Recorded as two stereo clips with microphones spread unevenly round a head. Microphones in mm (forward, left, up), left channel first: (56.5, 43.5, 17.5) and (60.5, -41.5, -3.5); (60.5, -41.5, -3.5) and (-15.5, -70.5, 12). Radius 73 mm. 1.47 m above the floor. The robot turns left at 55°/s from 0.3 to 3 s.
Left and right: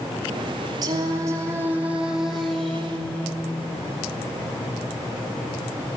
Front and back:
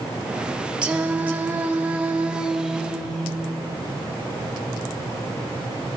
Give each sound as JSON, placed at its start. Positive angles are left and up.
{"t": 0.8, "sound": "singing", "azimuth_deg": -120, "distance_m": 1.1}